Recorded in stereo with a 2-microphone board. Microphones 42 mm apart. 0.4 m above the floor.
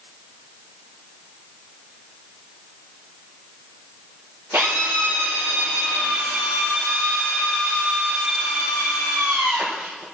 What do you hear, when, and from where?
4.5 s a drill: 65° right (ahead or behind), 5 m